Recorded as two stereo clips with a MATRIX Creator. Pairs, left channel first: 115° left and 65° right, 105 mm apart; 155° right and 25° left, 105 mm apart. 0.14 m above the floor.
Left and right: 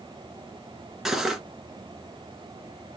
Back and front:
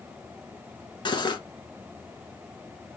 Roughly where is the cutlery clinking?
Behind right.